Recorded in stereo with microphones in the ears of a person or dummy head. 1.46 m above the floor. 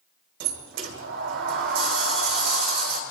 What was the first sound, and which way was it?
A sliding door, 60° right (ahead or behind).